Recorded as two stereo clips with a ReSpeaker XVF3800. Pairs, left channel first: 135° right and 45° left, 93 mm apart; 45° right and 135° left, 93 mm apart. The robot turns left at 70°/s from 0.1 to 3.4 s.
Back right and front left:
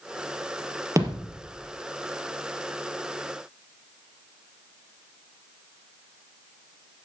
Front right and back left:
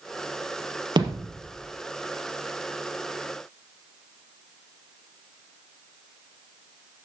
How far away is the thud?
About 4 m.